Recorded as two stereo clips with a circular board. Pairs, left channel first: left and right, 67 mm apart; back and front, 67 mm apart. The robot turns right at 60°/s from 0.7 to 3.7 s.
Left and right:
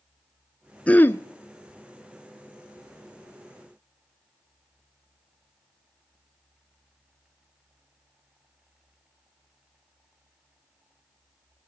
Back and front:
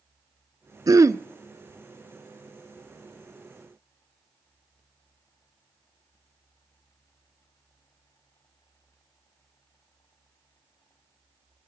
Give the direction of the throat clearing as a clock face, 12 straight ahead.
11 o'clock.